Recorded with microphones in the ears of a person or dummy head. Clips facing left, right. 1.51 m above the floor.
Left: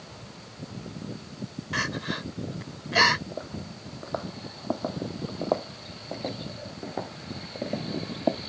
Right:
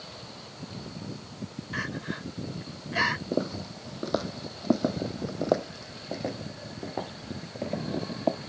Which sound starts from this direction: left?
Crying, at 1.7 s.